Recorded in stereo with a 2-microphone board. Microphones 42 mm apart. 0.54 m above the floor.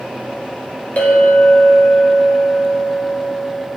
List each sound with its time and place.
1.0 s a clink: 40° left (ahead or behind), 1.2 m